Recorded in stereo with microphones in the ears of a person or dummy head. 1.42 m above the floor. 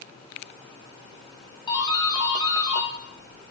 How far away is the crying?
I don't hear crying.